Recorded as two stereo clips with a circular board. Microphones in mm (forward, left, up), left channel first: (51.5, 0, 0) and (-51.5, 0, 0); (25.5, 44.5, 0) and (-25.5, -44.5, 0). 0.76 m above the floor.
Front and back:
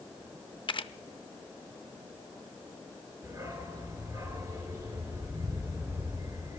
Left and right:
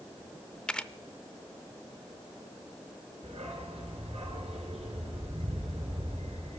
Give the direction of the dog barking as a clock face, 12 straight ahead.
4 o'clock.